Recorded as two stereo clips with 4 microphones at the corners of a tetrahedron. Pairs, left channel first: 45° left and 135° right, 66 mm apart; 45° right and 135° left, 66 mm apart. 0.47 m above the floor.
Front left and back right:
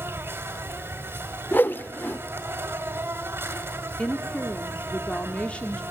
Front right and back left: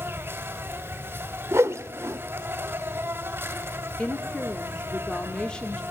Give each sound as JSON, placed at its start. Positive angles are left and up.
{"t": 0.0, "sound": "an insect", "azimuth_deg": 180, "distance_m": 2.0}
{"t": 1.5, "sound": "a whoosh", "azimuth_deg": 100, "distance_m": 0.7}
{"t": 4.0, "sound": "a woman speaking", "azimuth_deg": 10, "distance_m": 1.1}